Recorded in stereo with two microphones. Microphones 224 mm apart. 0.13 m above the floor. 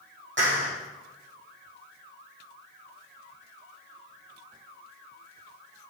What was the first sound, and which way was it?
A clap, 60° right (ahead or behind).